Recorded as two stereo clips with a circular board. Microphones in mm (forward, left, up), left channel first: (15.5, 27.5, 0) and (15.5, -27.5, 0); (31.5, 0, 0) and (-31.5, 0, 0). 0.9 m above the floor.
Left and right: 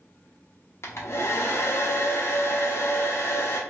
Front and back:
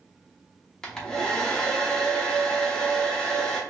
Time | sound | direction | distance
0.8 | a hair dryer | 75° left | 0.6 m